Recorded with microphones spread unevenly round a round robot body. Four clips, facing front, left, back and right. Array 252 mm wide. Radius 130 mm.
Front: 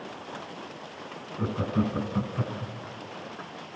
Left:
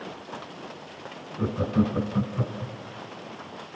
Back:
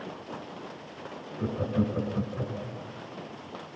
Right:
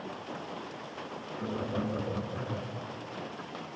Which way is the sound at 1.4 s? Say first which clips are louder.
Left 9 dB, front 1 dB; 45° left.